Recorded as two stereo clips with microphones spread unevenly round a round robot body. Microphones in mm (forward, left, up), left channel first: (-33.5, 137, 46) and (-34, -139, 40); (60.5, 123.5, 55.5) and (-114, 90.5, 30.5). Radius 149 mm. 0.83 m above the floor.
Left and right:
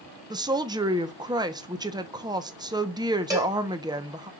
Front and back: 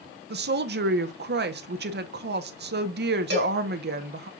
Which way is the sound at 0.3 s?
165° right.